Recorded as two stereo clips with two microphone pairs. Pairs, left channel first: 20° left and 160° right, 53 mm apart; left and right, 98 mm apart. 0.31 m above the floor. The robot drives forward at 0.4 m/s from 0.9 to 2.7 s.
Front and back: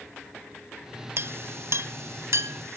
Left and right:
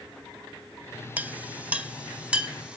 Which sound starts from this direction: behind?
A clink, at 1.2 s.